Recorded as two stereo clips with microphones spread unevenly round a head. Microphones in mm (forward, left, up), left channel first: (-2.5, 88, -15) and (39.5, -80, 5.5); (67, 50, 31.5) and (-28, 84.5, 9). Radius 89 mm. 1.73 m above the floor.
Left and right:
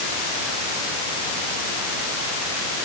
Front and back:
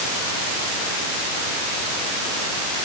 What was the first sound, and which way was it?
Only background noise.